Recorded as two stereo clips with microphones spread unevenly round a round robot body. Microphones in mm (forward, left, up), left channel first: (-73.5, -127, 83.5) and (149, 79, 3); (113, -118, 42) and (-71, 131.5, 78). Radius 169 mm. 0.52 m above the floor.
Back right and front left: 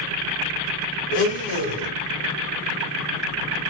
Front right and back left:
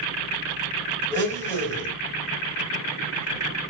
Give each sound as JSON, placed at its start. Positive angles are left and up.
{"t": 1.1, "sound": "a blender", "azimuth_deg": -135, "distance_m": 1.9}